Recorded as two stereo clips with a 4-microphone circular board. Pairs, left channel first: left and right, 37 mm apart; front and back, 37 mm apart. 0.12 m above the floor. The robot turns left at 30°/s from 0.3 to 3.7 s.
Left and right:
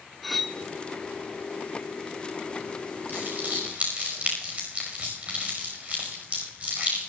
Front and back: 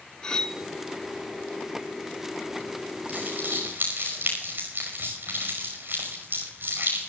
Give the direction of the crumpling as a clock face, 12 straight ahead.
4 o'clock.